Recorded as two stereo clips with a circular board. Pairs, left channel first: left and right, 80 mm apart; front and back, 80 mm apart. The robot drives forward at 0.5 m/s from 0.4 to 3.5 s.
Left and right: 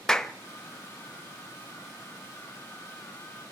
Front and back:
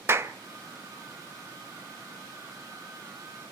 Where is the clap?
165° left, 0.8 m.